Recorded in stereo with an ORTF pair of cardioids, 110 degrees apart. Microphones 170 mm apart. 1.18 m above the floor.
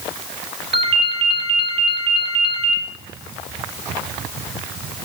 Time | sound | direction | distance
0.7 | a ringtone | 35° right | 1.6 m